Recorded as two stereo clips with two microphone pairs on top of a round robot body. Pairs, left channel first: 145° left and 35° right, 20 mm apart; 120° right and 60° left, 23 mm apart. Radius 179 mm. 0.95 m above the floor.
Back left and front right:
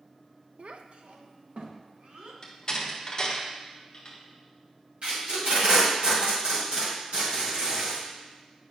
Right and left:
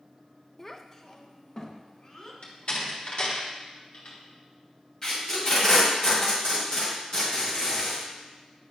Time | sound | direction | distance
0.6 | a child speaking | 50° right | 0.6 m
2.4 | a door slam | 155° right | 1.3 m
5.0 | tape being pulled | 65° right | 2 m